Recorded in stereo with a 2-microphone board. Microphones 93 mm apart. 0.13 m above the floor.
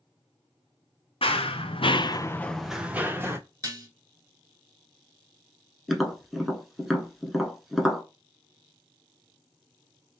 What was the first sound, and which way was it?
Running footsteps, 80° left.